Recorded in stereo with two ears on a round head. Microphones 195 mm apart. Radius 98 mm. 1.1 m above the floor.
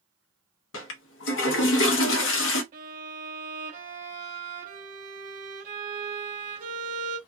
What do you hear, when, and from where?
0.7 s a toilet flushing: 60° left (ahead or behind), 0.7 m
2.7 s a violin: 35° right (ahead or behind), 0.8 m